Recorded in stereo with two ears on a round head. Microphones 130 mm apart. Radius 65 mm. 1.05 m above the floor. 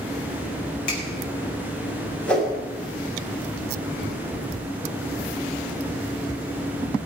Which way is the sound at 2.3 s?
10° left (ahead or behind).